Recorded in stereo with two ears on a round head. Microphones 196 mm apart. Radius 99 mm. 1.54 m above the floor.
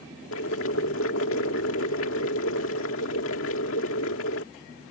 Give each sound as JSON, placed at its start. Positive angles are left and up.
{"t": 0.3, "sound": "boiling", "side_deg": 65}